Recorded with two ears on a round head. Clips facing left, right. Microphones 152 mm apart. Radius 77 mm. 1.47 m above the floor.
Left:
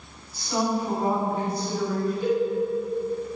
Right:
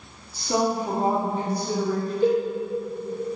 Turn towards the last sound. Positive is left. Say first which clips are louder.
# right 5 dB
turn(degrees=-30)  # may be behind; listen again after turning